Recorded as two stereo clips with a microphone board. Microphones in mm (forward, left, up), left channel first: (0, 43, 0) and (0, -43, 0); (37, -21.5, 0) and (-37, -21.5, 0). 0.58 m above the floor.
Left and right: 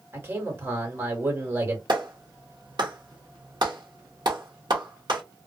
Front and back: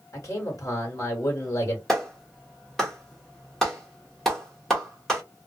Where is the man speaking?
35° right, 1.8 m.